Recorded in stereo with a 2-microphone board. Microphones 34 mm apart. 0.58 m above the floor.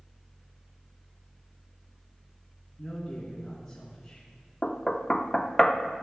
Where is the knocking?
20° left (ahead or behind), 0.5 m.